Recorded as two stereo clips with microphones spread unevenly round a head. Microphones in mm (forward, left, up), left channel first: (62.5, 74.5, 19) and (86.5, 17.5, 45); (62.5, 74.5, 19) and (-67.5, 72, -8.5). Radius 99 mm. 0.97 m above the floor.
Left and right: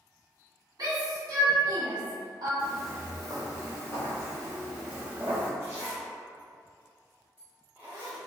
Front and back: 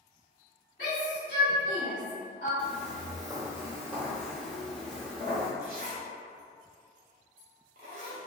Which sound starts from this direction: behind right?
A zipper, at 5.6 s.